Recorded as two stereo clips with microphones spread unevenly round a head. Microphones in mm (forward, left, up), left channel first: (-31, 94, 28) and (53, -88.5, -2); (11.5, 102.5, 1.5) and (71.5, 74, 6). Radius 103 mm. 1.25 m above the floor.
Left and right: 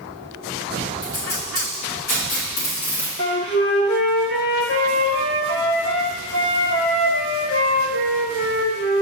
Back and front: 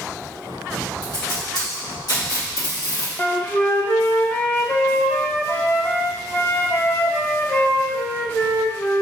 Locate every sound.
1.0 s tape being pulled: 145° left, 2.0 m
3.2 s a flute: 100° left, 1.1 m